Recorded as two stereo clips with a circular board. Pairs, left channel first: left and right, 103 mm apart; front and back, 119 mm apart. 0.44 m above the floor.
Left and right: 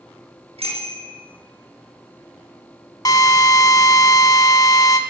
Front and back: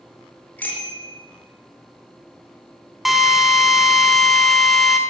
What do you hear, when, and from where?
0.6 s a bicycle bell: 75° right, 4.5 m
3.0 s a drill: 90° left, 1.3 m